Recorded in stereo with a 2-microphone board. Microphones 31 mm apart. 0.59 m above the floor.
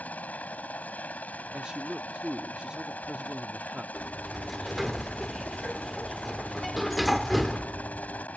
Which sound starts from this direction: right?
A man speaking, at 1.5 s.